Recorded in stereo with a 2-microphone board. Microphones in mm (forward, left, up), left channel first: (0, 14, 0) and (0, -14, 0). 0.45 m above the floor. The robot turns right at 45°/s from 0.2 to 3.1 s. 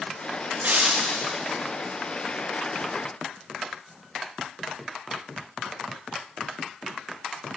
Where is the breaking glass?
105° right, 8 m; by 1.3 s 75° right, 8 m.